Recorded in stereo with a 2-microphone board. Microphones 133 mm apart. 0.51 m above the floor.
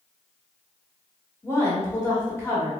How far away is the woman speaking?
About 0.9 m.